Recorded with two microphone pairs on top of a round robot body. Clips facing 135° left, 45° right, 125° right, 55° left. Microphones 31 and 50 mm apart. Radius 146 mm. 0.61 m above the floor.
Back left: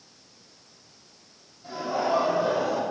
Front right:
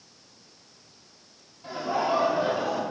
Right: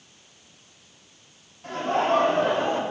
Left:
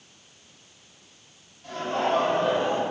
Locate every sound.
1.6 s laughter: 90° right, 3 m; by 2.8 s 120° right, 1.9 m